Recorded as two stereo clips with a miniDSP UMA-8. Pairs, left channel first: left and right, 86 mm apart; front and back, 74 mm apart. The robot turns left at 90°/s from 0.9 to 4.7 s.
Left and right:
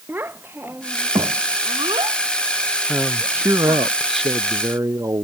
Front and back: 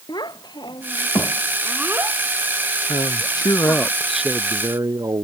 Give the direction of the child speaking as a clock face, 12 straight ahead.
1 o'clock.